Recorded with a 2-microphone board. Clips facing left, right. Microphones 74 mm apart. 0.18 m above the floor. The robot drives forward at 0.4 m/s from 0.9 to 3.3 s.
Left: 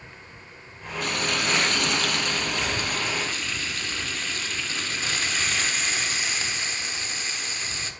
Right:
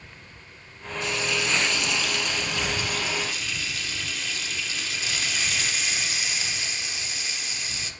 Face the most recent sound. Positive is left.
turn(degrees=40)  # may be behind; listen again after turning